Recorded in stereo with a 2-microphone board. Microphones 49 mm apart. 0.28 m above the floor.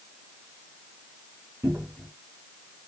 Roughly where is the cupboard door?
Right.